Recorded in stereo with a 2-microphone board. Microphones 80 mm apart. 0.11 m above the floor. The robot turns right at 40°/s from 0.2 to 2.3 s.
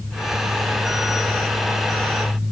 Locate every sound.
Only background noise.